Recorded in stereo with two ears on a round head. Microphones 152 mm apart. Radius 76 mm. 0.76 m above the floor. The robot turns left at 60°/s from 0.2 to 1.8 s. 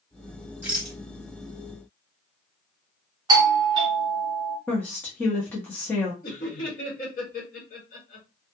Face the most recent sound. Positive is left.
turn(degrees=55)  # may be behind; listen again after turning